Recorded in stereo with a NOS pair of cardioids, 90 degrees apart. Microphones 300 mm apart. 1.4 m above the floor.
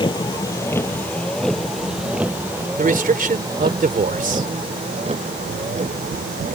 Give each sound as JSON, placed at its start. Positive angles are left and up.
{"t": 0.0, "sound": "a vehicle", "azimuth_deg": 15}
{"t": 2.8, "sound": "a man speaking", "azimuth_deg": -30}